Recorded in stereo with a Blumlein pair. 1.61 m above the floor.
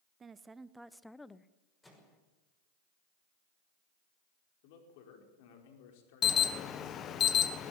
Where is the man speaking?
50° left, 5 m.